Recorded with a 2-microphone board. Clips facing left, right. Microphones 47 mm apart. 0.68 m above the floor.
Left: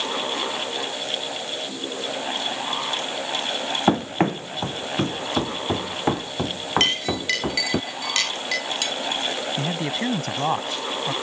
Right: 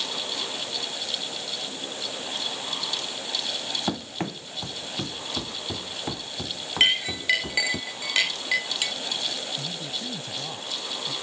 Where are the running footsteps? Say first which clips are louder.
Left 13 dB; 40° left (ahead or behind); by 7.8 s 45° left (ahead or behind).